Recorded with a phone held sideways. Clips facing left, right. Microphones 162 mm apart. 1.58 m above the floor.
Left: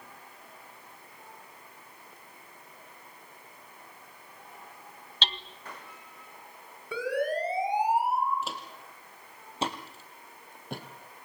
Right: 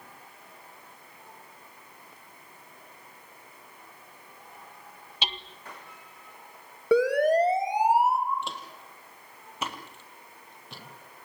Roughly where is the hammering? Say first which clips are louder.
Right 1 dB; centre.